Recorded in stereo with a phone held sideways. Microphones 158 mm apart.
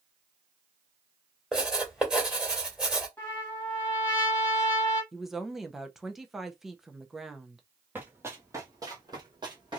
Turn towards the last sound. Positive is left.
turn(degrees=-30)  # may be behind; listen again after turning